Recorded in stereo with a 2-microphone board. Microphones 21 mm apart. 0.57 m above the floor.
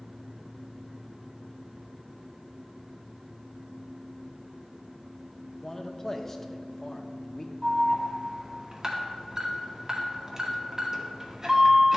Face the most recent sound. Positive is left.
turn(degrees=-30)  # may be behind; listen again after turning